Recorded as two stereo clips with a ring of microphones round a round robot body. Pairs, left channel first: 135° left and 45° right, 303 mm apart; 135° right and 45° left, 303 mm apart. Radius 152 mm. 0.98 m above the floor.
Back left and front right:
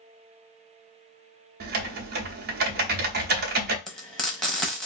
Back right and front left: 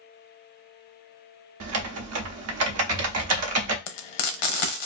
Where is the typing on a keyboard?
10° left, 0.6 m.